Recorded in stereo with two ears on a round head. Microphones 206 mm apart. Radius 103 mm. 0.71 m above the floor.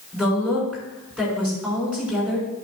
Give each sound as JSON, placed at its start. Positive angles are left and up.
{"t": 0.1, "sound": "a woman speaking", "side_deg": 0, "distance_m": 5.5}